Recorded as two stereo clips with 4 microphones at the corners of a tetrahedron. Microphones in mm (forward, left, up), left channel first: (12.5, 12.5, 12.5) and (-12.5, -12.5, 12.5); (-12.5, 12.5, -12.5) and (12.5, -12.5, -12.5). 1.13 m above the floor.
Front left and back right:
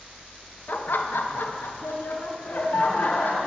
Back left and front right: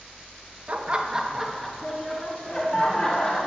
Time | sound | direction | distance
0.7 | laughter | 10° left | 0.9 m